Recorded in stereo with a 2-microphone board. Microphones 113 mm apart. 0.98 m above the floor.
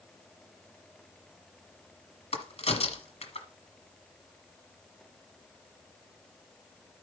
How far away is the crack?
About 1.8 m.